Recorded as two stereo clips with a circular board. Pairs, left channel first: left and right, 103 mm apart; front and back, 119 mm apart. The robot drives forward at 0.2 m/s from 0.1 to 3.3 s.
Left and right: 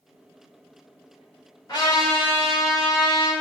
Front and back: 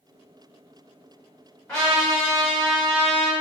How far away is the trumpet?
About 1.5 m.